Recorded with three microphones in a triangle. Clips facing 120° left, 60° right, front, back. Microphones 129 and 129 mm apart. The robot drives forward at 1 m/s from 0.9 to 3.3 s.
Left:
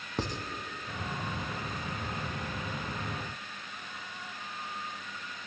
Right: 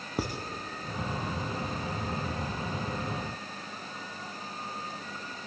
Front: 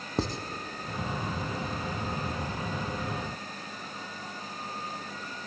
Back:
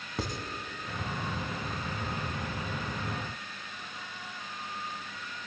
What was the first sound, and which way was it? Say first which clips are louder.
Writing: right 2 dB, front 5 dB; 15° left.